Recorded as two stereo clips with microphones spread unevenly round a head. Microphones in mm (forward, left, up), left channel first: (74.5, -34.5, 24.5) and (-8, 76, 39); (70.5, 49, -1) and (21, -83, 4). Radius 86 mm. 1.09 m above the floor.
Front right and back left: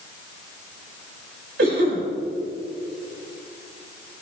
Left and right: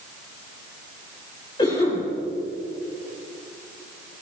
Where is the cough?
140° left, 6.5 m.